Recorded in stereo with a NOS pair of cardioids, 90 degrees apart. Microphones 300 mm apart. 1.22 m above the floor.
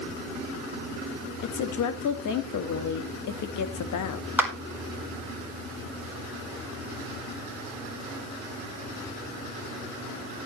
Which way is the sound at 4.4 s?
5° right.